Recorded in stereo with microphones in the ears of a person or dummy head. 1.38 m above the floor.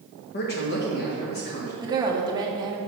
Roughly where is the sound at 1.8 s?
Centre.